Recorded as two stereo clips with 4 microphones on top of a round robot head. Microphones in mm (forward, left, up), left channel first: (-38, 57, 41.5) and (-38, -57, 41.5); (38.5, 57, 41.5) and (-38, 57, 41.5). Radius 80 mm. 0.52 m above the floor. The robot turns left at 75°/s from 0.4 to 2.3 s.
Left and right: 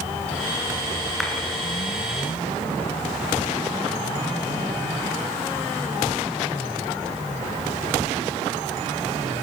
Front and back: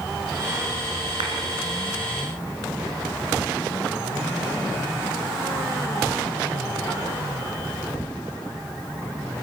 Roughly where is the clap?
Behind.